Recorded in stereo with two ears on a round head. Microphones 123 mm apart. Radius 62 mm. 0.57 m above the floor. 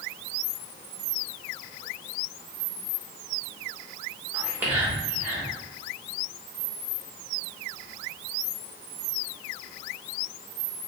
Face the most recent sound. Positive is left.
turn(degrees=-15)  # may be behind; listen again after turning